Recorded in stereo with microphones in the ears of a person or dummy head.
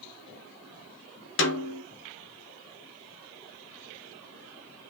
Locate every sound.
1.4 s a snare drum: 55° left (ahead or behind), 0.6 m